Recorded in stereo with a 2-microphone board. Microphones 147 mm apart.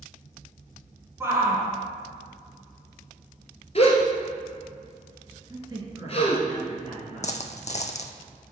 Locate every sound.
1.2 s a shout: 15° right (ahead or behind), 1.5 m
3.8 s a gasp: 45° left (ahead or behind), 1.1 m
5.5 s a man speaking: 25° right (ahead or behind), 2.0 m
7.2 s a dropped coin: 55° left (ahead or behind), 0.5 m